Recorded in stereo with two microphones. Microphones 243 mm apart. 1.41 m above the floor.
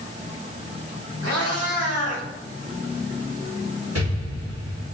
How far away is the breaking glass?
No breaking glass in this recording.